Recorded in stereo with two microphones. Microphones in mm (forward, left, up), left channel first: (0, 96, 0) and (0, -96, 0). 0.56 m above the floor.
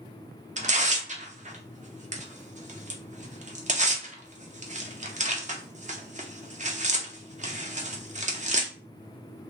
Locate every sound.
0.6 s tearing paper: 40° right (ahead or behind), 0.5 m